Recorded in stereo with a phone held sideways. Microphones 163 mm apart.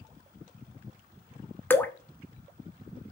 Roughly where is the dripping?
Centre.